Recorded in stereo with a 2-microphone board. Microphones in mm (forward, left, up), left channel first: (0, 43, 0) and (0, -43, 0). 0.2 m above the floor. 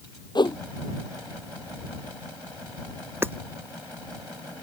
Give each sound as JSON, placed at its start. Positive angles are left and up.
{"t": 0.3, "sound": "a whoosh", "side_deg": 60}
{"t": 3.2, "sound": "hammering", "side_deg": -25}